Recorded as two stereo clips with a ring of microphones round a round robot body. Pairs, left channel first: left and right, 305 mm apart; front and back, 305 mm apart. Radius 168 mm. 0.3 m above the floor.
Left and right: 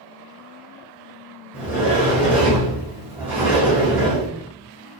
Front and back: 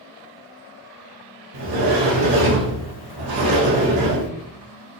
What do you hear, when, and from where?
1.5 s a sliding door: 175° right, 4.5 m